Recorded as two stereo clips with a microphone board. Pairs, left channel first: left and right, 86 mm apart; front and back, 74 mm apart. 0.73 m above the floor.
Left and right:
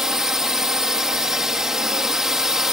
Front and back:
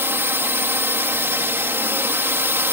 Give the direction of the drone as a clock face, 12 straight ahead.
6 o'clock.